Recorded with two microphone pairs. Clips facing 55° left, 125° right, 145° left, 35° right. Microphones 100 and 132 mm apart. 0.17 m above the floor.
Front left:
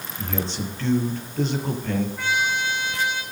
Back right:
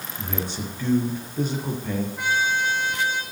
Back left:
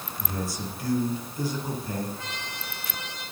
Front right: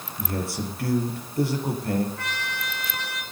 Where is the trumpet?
50° right, 4.5 m.